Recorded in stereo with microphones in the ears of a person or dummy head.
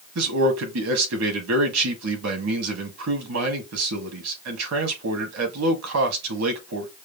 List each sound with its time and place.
0.1 s a man speaking: 85° right, 1.7 m